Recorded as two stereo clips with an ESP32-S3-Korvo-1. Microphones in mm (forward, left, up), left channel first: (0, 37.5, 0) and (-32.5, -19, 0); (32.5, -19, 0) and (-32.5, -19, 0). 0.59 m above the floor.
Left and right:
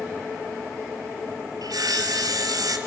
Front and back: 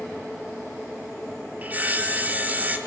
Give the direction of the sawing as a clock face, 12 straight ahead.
4 o'clock.